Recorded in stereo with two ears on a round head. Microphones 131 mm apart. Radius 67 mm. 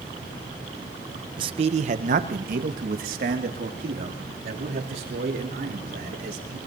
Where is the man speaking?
35° right (ahead or behind), 0.6 m; by 6.6 s 70° right (ahead or behind), 4 m.